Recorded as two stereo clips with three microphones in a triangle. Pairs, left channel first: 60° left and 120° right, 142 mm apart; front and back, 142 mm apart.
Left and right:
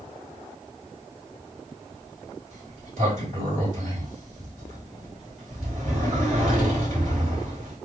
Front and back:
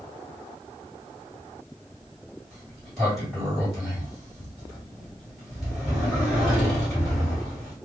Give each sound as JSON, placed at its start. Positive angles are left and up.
{"t": 2.5, "sound": "a sliding door", "azimuth_deg": -90, "distance_m": 2.5}